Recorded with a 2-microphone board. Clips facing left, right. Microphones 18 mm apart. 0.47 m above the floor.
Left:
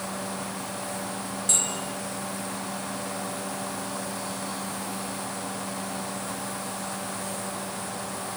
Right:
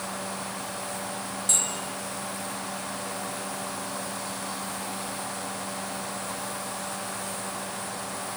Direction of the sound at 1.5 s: 5° left (ahead or behind).